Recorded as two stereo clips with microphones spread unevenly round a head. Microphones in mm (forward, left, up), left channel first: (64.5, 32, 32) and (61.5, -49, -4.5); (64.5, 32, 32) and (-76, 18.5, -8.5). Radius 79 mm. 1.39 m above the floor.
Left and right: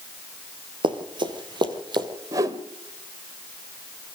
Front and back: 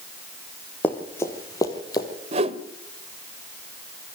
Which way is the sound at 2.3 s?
160° right.